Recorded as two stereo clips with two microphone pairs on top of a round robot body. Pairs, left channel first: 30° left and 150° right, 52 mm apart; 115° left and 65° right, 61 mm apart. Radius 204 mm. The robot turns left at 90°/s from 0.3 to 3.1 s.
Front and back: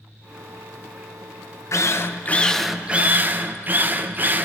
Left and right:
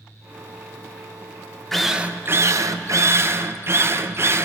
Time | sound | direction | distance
1.7 | a drill | 25° left | 0.7 m